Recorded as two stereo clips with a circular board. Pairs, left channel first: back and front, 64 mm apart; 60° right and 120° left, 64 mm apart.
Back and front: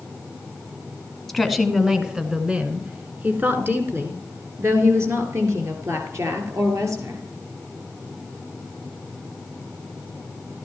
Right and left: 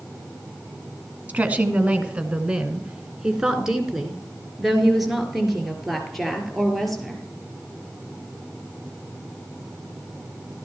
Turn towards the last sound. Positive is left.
turn(degrees=30)